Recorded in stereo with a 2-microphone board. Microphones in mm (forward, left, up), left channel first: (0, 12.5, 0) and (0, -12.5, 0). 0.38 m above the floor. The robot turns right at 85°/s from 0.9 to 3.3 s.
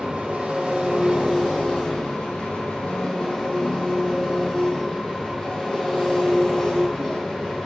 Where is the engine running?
35° right, 4 m; by 7.7 s 170° left, 4 m.